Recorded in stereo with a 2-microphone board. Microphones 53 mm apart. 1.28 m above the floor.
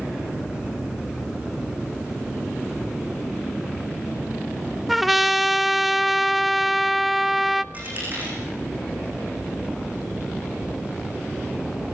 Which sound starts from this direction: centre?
A trumpet, at 4.9 s.